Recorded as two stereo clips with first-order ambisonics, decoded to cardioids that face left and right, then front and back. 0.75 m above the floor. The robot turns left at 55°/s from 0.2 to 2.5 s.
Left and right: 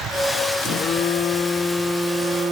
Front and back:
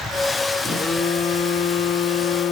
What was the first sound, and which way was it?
A phone buzzing, 70° left.